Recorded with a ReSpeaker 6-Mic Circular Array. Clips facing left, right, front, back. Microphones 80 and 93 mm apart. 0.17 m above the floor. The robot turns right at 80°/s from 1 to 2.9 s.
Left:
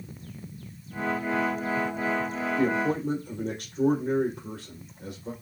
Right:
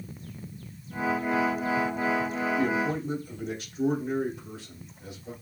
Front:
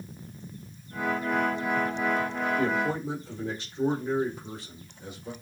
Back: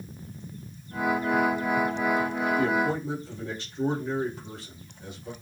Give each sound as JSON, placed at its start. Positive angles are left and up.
{"t": 2.5, "sound": "a man speaking", "azimuth_deg": 45, "distance_m": 5.5}